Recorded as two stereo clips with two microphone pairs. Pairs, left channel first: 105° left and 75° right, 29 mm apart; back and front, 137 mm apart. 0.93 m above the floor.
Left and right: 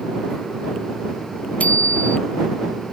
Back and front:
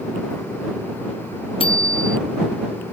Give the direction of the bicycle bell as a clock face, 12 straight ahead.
8 o'clock.